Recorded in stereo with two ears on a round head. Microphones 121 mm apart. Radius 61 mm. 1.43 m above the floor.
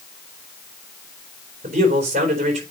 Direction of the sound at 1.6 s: 55° right (ahead or behind).